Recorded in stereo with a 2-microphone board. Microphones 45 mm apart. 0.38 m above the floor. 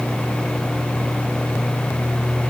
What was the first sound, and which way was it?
Only background noise.